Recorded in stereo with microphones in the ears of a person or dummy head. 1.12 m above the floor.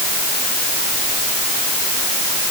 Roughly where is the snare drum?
I don't hear a snare drum.